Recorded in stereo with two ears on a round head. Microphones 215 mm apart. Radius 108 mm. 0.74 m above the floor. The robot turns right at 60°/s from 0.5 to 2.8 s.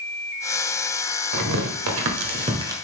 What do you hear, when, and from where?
1.3 s tearing paper: 80° right, 1.2 m; by 2.8 s 15° right (ahead or behind), 1.2 m